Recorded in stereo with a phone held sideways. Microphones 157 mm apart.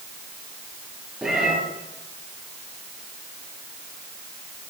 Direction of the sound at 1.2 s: 5° right (ahead or behind).